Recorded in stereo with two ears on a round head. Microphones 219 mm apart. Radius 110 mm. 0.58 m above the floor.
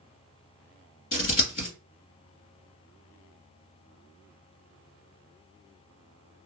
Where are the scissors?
35° left (ahead or behind), 1.7 m.